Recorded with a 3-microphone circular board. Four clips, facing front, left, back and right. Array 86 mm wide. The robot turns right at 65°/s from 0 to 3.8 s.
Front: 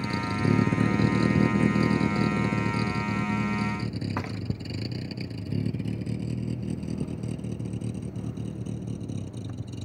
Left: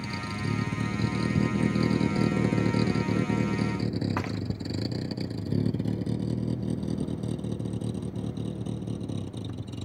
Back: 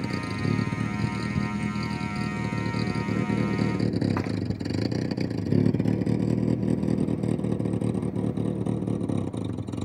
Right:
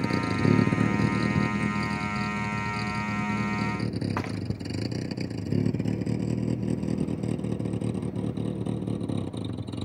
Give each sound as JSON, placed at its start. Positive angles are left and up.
{"t": 0.0, "sound": "a vehicle", "azimuth_deg": -100}